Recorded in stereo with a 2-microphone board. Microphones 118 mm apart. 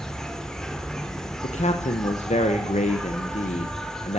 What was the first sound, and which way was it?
An insect, 5° left (ahead or behind).